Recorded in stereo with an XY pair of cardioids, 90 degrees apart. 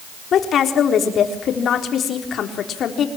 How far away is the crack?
No crack in this recording.